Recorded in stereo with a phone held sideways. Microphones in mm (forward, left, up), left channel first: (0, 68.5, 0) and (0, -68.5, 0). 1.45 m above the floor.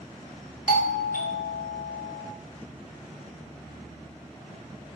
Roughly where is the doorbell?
Left.